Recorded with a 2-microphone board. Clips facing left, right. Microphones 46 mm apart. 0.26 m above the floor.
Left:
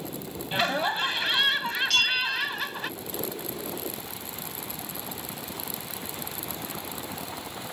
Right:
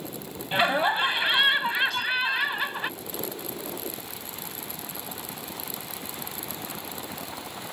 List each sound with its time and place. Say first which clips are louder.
0.5 s laughter: right 3 dB; 15° right (ahead or behind)
1.9 s a bell: left 1 dB; 75° left (ahead or behind)